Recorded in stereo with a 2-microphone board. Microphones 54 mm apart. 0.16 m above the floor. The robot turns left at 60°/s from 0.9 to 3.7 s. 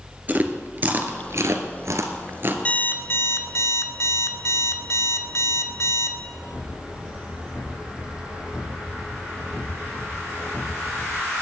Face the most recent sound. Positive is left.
turn(degrees=90)